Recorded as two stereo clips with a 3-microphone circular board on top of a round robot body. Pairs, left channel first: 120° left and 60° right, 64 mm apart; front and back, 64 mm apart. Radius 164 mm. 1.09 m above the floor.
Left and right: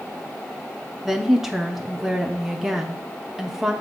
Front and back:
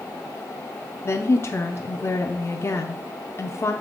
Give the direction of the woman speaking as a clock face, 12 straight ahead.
11 o'clock.